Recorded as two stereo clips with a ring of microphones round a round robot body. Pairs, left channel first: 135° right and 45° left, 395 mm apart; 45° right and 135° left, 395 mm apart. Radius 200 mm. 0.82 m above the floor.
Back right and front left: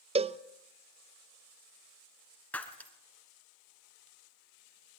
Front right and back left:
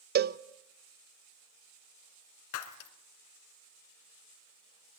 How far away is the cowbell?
About 0.7 m.